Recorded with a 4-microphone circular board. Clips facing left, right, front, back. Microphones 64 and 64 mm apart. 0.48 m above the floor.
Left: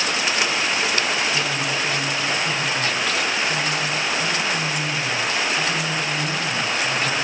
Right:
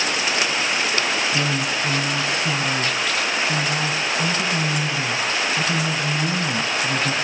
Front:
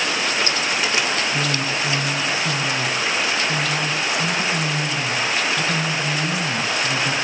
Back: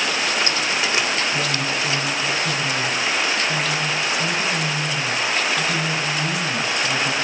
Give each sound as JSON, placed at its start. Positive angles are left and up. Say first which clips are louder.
{"t": 1.3, "sound": "a woman speaking", "louder": "right 1 dB, even", "azimuth_deg": -80, "distance_m": 4.5}